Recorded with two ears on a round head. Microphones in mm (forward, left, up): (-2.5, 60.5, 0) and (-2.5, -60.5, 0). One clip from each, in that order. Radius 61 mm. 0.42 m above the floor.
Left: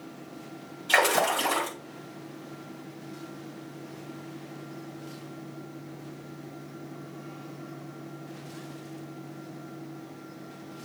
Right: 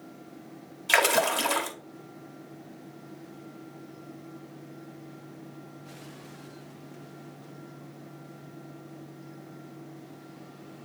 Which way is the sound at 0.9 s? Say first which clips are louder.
Even; 50° right (ahead or behind).